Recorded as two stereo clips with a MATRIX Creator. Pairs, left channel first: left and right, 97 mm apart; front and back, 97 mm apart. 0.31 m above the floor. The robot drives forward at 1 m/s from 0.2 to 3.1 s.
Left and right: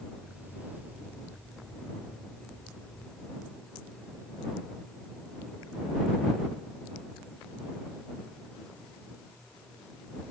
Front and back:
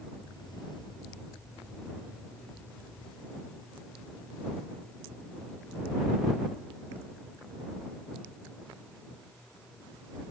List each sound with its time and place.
Only background noise.